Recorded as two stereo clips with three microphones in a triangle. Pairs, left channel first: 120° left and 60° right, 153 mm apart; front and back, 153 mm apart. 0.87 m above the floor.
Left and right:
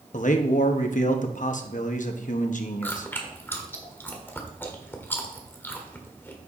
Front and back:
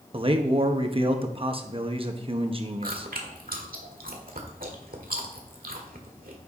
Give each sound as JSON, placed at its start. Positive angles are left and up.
{"t": 0.1, "sound": "a man speaking", "azimuth_deg": 135, "distance_m": 1.0}
{"t": 2.8, "sound": "chewing", "azimuth_deg": -165, "distance_m": 1.4}